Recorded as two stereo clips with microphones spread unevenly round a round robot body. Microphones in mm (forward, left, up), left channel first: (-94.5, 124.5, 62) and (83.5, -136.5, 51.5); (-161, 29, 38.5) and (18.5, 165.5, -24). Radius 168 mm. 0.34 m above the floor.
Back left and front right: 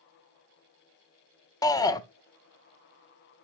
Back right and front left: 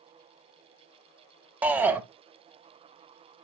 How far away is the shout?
About 0.9 m.